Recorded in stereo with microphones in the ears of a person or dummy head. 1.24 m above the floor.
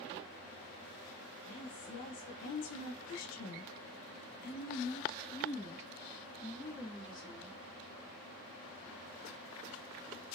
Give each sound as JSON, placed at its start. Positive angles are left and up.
{"t": 1.4, "sound": "a woman speaking", "side_deg": 35, "distance_m": 1.1}